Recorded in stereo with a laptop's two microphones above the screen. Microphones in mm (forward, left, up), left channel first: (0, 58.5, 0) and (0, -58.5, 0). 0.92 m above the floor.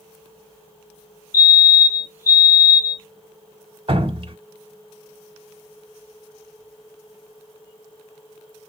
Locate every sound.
1.3 s a fire alarm: 30° left (ahead or behind), 2.0 m
3.9 s dripping: 50° right (ahead or behind), 1.0 m